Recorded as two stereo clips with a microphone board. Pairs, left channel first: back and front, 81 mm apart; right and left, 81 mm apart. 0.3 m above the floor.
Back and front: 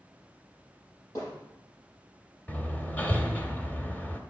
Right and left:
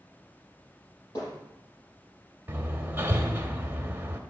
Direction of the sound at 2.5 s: 130° left.